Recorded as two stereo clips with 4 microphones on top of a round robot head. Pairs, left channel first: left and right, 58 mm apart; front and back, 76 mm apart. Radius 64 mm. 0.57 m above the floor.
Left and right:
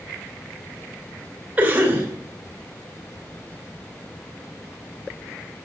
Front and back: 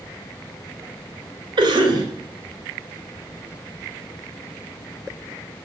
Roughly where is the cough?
Behind.